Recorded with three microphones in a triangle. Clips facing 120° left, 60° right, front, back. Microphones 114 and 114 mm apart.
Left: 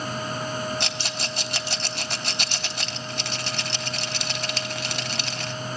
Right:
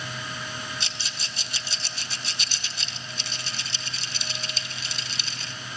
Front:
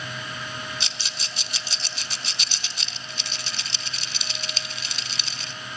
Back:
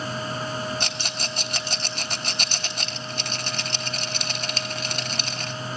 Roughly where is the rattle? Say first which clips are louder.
Left 8 dB, back 6 dB; behind left.